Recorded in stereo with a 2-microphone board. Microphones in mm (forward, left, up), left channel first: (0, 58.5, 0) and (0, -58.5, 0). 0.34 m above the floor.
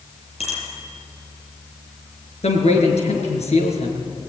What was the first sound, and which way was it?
A bicycle bell, 60° left (ahead or behind).